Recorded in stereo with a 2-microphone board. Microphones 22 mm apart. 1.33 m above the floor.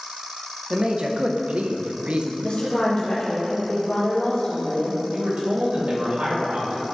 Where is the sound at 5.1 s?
85° right, 2 m.